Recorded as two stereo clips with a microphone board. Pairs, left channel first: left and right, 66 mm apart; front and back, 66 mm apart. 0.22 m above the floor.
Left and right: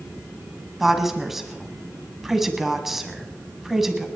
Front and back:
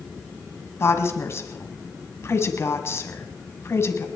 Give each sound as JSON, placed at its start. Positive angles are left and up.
{"t": 0.8, "sound": "a woman speaking", "azimuth_deg": -5, "distance_m": 1.7}